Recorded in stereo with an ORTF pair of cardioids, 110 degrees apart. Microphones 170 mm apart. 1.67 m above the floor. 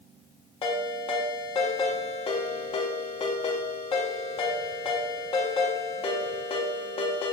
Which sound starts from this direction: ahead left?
A ringtone, at 0.6 s.